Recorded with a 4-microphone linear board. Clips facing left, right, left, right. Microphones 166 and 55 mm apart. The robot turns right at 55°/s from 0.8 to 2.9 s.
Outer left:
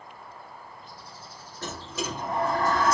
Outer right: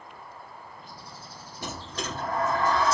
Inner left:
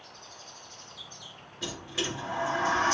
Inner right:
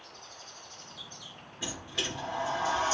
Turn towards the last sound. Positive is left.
turn(degrees=55)